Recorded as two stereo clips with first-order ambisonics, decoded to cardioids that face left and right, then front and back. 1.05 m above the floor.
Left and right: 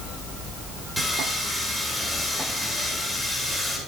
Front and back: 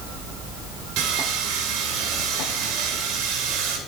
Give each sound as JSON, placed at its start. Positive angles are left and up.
{"t": 1.0, "sound": "sawing", "azimuth_deg": -175, "distance_m": 3.0}